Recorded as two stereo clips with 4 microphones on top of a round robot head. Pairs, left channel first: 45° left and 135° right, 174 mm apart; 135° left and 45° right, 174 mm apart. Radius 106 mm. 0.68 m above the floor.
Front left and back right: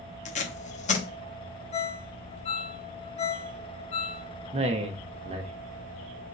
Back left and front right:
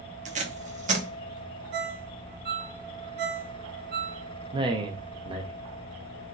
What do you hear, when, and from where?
0.2 s tape being pulled: straight ahead, 0.8 m
1.7 s a ringtone: 10° right, 0.6 m
4.5 s a man speaking: 95° right, 0.6 m